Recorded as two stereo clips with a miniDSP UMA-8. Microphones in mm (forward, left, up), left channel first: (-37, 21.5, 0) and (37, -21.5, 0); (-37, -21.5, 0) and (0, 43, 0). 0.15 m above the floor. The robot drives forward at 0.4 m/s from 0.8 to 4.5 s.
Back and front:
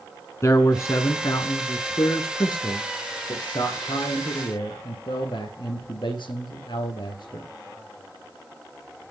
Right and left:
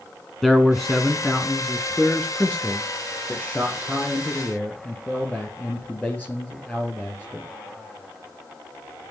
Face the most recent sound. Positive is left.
turn(degrees=170)